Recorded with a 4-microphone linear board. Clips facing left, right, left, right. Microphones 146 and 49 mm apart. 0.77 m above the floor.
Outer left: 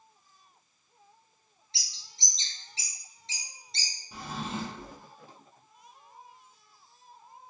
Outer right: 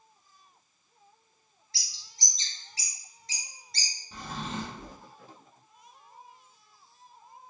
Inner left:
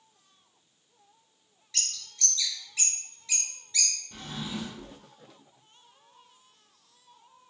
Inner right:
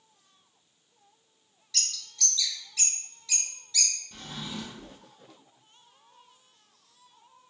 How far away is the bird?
About 0.6 m.